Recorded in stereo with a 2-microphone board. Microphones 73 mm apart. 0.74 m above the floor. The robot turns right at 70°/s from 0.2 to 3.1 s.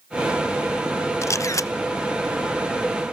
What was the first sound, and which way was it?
A camera shutter, 65° left.